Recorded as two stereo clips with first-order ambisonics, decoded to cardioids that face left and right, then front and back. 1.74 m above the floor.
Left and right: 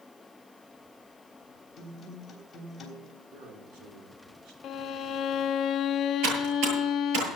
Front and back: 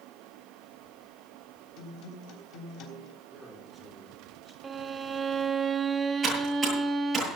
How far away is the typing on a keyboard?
About 9.5 m.